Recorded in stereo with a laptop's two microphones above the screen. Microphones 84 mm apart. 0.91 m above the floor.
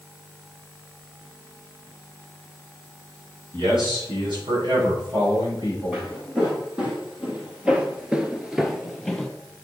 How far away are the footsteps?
About 3 m.